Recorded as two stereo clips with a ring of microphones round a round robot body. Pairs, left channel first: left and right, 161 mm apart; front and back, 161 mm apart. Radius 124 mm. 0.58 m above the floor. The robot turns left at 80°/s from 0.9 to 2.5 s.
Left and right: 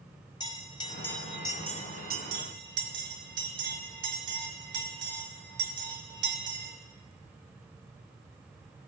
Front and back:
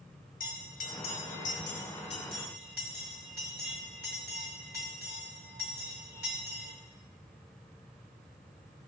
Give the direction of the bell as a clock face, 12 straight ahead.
11 o'clock.